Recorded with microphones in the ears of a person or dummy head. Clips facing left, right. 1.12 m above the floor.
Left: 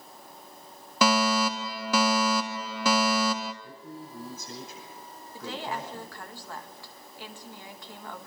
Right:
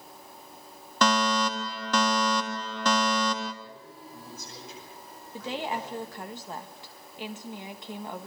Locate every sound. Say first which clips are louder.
1.0 s a fire alarm: left 1 dB; 10° left (ahead or behind), 1.6 m
3.6 s a man speaking: left 4 dB; 65° left (ahead or behind), 9.5 m
5.3 s a woman speaking: right 2 dB; 25° right (ahead or behind), 1.5 m